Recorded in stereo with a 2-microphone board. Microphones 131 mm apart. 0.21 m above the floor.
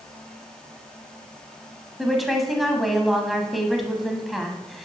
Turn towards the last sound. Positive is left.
turn(degrees=0)  # may be behind; listen again after turning